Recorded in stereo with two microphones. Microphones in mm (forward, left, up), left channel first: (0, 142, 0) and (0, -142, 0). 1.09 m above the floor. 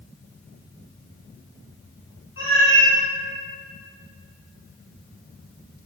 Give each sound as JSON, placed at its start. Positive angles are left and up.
{"t": 2.4, "sound": "a cat meowing", "side_deg": 45, "distance_m": 1.5}